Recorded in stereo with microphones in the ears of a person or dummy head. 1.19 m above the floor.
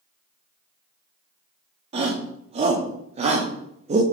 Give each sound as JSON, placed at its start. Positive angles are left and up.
{"t": 1.9, "sound": "a shout", "side_deg": -30, "distance_m": 2.5}